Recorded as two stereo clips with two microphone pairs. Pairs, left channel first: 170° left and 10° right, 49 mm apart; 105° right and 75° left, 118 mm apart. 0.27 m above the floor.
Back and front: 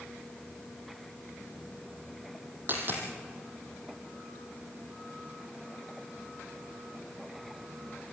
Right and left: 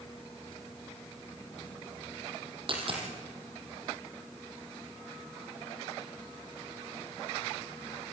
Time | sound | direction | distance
2.7 | a dropped coin | 35° left | 4 m